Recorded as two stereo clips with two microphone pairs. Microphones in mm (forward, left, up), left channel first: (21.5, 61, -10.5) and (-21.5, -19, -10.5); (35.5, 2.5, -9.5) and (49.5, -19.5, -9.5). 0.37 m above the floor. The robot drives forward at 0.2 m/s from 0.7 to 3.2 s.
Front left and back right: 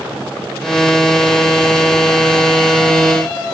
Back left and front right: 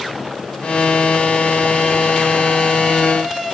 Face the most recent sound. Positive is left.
No sound to turn to.